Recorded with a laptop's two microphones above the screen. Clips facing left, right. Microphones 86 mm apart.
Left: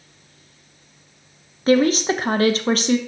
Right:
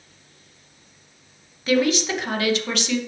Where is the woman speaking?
35° left (ahead or behind), 0.6 m.